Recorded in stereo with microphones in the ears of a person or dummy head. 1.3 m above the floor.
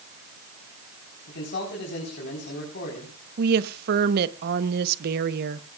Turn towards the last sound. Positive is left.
turn(degrees=-55)  # may be behind; listen again after turning